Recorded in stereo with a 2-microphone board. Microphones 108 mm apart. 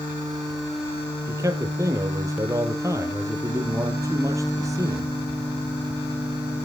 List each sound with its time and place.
1.3 s a man speaking: 25° right (ahead or behind), 2 m